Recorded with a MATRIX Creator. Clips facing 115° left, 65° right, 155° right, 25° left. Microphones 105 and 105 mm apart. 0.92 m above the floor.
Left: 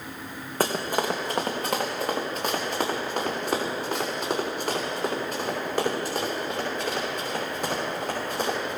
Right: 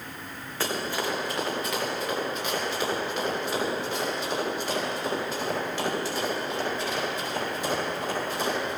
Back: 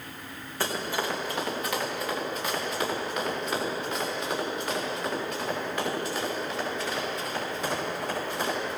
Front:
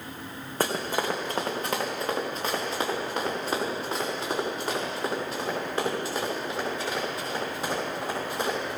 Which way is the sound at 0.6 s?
65° left.